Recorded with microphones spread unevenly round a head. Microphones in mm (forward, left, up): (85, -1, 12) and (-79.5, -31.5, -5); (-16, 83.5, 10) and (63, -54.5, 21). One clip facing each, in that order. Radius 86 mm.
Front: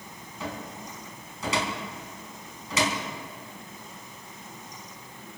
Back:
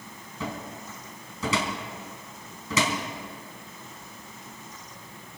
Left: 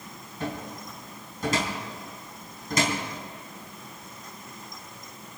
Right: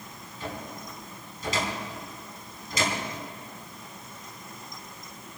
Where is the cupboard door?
170° left, 4 m.